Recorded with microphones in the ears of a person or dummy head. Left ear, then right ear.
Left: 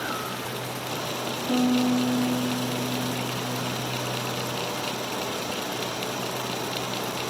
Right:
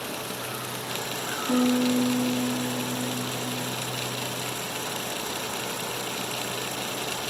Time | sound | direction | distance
1.5 | a piano | 70° right (ahead or behind) | 1.4 m